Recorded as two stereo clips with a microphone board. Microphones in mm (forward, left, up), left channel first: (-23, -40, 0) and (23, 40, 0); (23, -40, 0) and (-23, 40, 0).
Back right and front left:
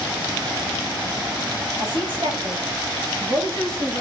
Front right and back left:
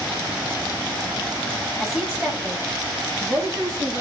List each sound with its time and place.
1.8 s a woman speaking: 35° left, 3 m; by 4.0 s 85° left, 3.5 m